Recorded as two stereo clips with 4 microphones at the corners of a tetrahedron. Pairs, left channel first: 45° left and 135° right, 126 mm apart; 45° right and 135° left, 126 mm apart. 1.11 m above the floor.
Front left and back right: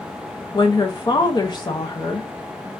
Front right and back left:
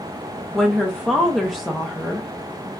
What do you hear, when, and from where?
0.5 s a woman speaking: 45° left, 0.6 m